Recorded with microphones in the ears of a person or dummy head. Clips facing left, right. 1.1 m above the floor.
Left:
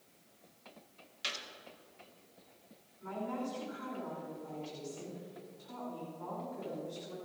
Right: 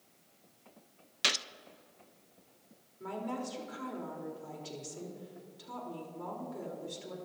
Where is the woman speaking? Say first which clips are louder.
Right 1 dB; 75° right (ahead or behind), 3.5 m.